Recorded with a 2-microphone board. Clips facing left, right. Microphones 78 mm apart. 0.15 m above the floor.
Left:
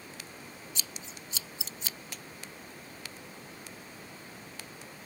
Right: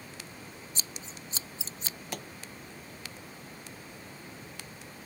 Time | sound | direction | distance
0.8 | scissors | 35° right (ahead or behind) | ?
2.1 | a pop | 55° right (ahead or behind) | ?